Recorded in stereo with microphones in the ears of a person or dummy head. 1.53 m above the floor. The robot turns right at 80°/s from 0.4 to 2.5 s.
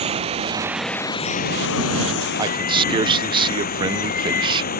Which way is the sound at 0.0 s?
35° right.